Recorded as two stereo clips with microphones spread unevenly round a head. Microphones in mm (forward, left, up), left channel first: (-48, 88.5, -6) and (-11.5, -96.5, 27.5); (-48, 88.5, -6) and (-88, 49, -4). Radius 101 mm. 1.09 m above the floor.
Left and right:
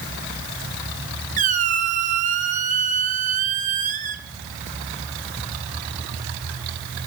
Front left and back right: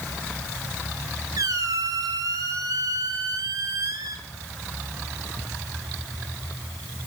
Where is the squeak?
125° right, 1.3 m.